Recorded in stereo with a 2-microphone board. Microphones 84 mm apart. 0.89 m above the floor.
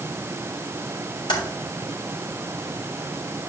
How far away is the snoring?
No snoring in this recording.